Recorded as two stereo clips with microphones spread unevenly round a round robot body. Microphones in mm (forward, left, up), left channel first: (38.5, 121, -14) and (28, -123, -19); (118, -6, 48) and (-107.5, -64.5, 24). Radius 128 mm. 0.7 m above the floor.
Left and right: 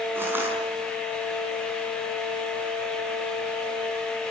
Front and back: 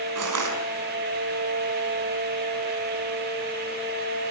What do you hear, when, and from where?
0.1 s crushing: 175° right, 5 m